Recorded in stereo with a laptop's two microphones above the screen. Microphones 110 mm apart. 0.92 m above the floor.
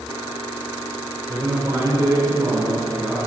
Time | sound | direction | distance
1.3 | a man speaking | 35° right (ahead or behind) | 2.5 m